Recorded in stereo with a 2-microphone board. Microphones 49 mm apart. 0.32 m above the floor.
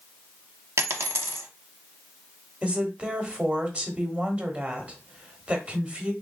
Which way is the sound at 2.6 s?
25° right (ahead or behind).